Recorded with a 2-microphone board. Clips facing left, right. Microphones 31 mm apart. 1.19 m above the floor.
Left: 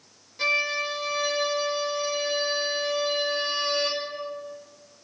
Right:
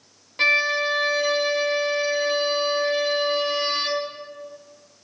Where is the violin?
50° right (ahead or behind), 1.9 m.